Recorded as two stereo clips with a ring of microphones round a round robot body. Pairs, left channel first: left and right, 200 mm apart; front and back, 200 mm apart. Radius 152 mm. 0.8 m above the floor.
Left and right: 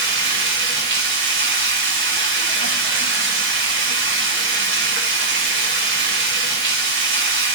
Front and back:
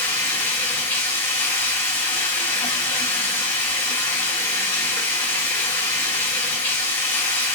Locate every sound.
0.0 s running water: 70° right, 1.3 m